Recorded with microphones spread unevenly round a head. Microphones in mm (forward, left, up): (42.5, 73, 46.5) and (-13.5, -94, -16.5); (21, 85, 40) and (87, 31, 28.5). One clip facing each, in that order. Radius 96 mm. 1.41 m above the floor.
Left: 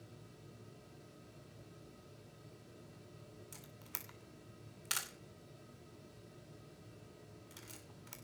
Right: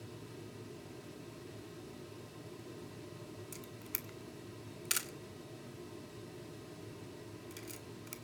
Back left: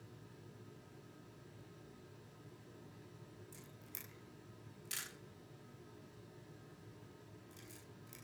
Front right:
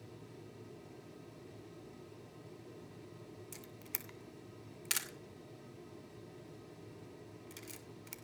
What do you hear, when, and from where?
0.0 s a fan: 95° right, 1.7 m
3.5 s a camera shutter: 45° right, 2.5 m